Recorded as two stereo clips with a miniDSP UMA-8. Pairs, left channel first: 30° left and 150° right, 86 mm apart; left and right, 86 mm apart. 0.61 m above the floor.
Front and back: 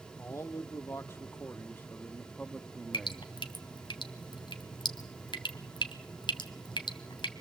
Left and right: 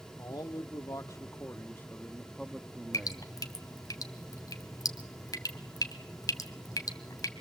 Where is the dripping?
45° left, 1.7 m.